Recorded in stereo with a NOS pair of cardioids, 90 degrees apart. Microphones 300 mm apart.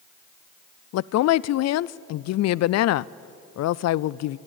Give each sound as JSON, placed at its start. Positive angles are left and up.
{"t": 0.9, "sound": "a woman speaking", "azimuth_deg": 60, "distance_m": 0.5}